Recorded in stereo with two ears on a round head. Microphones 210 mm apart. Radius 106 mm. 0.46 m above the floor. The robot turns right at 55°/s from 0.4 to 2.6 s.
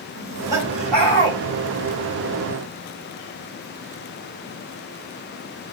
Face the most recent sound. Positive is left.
turn(degrees=95)